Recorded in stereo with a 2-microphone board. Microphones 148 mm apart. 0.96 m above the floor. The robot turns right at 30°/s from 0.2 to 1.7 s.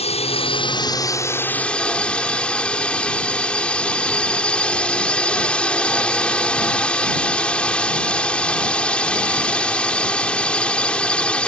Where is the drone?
125° left; by 11.5 s 170° left.